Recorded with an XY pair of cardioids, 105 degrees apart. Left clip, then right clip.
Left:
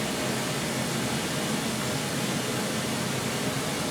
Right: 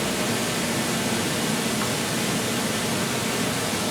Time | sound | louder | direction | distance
0.0 | running water | right 4 dB | 55° right | 2.5 m